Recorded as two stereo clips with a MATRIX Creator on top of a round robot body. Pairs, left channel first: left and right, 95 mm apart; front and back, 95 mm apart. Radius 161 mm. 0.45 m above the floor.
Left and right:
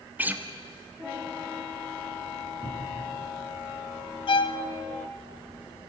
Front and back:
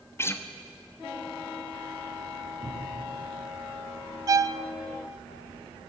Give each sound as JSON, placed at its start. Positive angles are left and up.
{"t": 0.2, "sound": "a guitar", "azimuth_deg": -35, "distance_m": 1.5}
{"t": 2.6, "sound": "a thud", "azimuth_deg": -130, "distance_m": 7.5}
{"t": 4.3, "sound": "a violin", "azimuth_deg": 125, "distance_m": 0.5}